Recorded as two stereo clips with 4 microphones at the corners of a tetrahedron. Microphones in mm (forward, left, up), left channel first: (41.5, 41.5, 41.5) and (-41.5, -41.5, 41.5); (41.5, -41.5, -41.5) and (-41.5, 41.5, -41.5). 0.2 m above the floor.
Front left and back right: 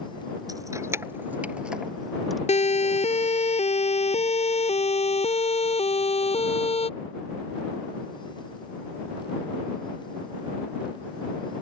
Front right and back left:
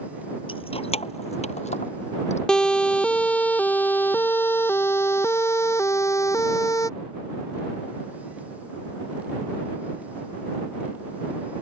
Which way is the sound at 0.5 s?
80° right.